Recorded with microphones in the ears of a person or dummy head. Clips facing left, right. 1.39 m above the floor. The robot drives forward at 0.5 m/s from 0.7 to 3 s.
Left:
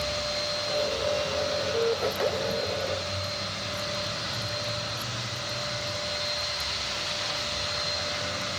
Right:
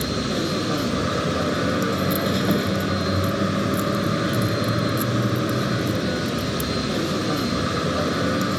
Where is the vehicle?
85° right.